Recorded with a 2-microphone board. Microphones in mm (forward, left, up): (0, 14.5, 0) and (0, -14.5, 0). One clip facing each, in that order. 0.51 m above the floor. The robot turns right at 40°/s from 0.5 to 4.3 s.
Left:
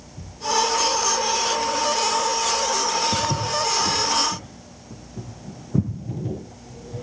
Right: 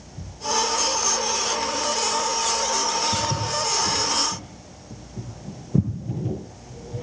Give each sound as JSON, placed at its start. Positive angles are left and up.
{"t": 3.1, "sound": "footsteps", "side_deg": 75, "distance_m": 4.0}